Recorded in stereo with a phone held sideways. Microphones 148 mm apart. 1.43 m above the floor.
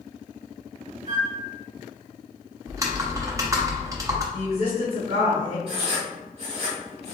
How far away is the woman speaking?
About 1.8 m.